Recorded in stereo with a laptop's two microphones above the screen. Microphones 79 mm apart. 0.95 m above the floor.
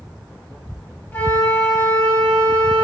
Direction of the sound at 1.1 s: 25° left (ahead or behind).